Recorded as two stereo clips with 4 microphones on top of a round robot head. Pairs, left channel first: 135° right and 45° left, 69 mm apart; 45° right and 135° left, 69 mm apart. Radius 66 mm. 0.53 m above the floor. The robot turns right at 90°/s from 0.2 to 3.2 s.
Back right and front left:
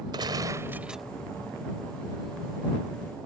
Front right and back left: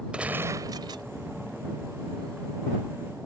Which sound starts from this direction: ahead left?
A gunshot, at 0.1 s.